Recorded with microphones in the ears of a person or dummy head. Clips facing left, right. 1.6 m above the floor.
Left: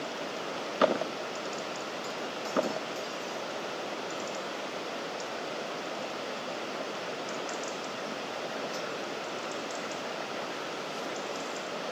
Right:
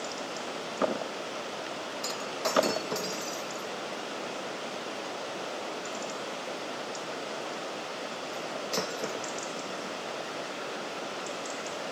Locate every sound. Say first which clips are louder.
2.0 s breaking glass: right 2 dB; 70° right (ahead or behind)